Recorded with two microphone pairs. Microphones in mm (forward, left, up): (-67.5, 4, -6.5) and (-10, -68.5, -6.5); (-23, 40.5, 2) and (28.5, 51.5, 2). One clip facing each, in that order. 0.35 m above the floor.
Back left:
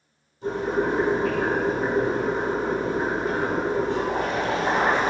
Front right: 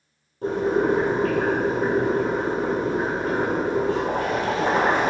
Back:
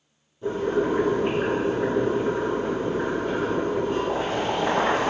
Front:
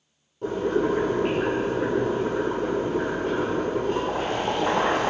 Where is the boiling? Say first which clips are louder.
Front right 3 dB, even; 20° right, 1.6 m.